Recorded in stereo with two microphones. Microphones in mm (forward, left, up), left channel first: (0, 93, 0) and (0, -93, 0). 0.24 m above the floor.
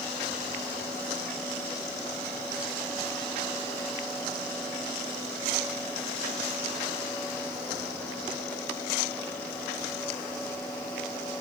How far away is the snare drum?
I don't hear a snare drum.